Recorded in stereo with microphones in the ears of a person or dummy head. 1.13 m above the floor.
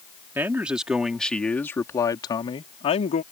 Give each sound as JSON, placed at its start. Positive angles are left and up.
{"t": 0.3, "sound": "a man speaking", "side_deg": -5}